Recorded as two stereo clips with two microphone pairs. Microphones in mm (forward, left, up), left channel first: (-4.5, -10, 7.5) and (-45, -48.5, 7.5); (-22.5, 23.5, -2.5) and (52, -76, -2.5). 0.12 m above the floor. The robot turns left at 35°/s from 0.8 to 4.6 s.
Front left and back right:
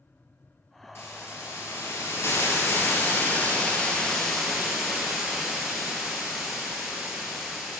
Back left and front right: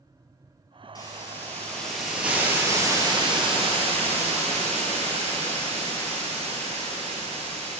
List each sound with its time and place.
0.9 s a hiss: 70° left, 1.8 m; by 7.8 s 55° right, 1.8 m